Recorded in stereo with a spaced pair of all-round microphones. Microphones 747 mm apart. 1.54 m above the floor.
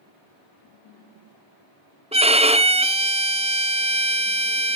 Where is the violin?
10° right (ahead or behind), 0.8 m.